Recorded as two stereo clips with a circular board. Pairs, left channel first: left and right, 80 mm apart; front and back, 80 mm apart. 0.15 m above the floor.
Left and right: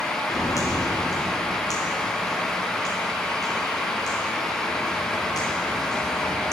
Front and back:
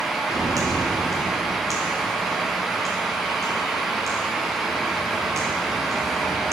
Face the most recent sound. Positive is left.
turn(degrees=125)